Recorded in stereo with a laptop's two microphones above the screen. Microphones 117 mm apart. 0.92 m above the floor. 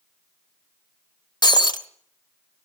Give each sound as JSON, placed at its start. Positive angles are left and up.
{"t": 1.4, "sound": "breaking glass", "side_deg": 35, "distance_m": 1.1}